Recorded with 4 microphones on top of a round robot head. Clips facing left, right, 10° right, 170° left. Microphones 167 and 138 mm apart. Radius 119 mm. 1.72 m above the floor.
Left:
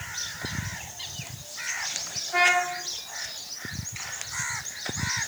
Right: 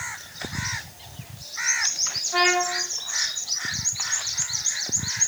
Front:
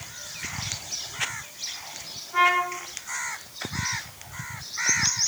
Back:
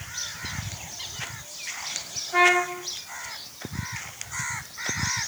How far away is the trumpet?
About 3 m.